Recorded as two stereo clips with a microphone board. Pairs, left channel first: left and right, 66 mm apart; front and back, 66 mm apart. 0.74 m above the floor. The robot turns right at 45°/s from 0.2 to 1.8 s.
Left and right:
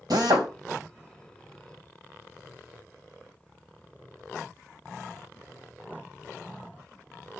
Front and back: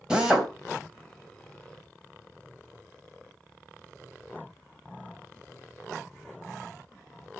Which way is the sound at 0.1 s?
100° right.